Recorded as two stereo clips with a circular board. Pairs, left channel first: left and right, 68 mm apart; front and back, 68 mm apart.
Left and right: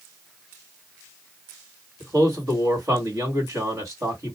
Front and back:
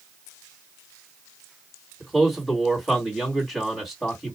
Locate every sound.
2.0 s a man speaking: 90° right, 1.8 m